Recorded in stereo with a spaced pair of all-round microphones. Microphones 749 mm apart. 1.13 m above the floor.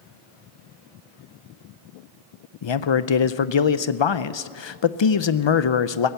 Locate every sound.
2.6 s a man speaking: 40° left (ahead or behind), 0.5 m